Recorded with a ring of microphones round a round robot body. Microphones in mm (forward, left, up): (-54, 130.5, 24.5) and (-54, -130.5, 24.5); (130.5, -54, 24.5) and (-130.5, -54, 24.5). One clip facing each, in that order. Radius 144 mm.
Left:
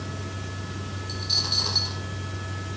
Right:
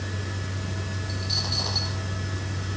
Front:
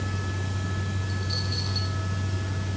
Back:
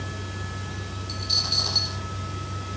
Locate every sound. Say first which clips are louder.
1.1 s a dropped coin: right 2 dB, front 3 dB; 145° left